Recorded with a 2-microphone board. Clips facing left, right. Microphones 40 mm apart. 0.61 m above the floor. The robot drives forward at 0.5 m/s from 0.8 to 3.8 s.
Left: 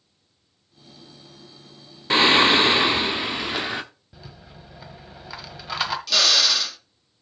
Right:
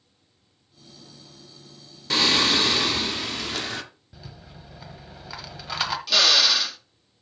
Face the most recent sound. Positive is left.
turn(degrees=-10)  # may be behind; listen again after turning